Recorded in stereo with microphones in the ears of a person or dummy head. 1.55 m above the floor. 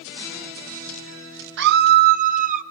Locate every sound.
1.6 s a scream: 60° right (ahead or behind), 1.1 m; by 2.6 s 50° right (ahead or behind), 1.9 m